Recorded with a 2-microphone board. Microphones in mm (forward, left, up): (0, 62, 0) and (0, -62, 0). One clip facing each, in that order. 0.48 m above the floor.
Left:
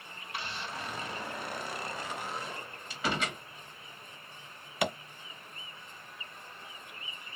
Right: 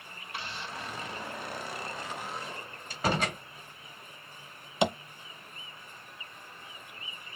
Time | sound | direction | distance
2.9 | a door slam | 45° right (ahead or behind) | 1.6 m
4.8 | tapping | 25° right (ahead or behind) | 0.5 m